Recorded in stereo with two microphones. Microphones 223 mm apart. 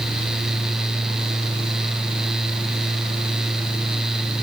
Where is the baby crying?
I don't hear a baby crying.